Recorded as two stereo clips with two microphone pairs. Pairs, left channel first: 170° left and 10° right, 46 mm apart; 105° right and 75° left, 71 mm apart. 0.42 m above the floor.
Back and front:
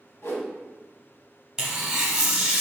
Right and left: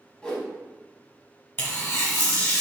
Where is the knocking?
I don't hear knocking.